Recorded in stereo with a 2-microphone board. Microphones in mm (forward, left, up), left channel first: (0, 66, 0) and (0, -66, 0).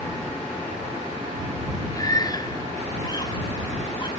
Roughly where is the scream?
Left.